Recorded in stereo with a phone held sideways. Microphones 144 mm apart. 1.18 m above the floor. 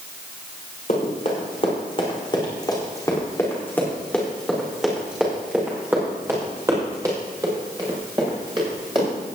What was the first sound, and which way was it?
Running footsteps, 50° left (ahead or behind).